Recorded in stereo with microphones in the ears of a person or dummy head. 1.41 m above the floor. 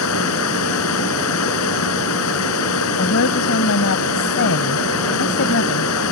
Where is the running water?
85° left.